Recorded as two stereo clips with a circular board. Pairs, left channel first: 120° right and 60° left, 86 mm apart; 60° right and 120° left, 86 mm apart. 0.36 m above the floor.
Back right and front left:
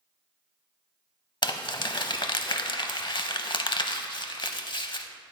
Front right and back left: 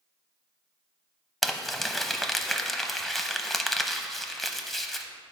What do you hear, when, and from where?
1.4 s crumpling: 145° right, 0.6 m